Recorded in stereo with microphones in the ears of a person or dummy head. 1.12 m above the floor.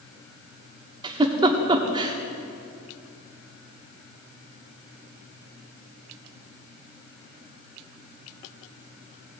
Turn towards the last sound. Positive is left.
turn(degrees=-20)  # may be behind; listen again after turning